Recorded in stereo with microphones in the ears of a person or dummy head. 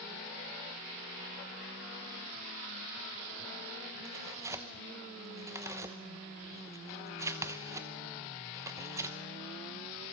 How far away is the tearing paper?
About 1.0 m.